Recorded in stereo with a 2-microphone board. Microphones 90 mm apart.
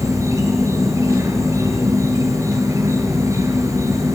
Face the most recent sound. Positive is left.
turn(degrees=-35)  # may be behind; listen again after turning